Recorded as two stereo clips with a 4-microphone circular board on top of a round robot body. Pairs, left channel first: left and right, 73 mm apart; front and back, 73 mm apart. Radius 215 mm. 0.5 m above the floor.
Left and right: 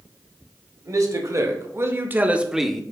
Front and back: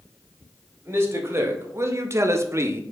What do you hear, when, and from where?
0.8 s a man speaking: 125° right, 1.4 m; by 2.8 s 170° left, 0.7 m